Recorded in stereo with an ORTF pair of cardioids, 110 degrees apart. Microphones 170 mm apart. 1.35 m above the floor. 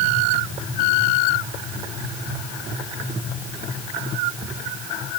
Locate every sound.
Only background noise.